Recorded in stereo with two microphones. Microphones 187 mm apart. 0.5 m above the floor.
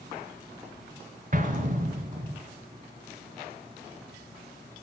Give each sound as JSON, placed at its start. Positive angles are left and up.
{"t": 1.3, "sound": "an explosion", "side_deg": -50, "distance_m": 1.5}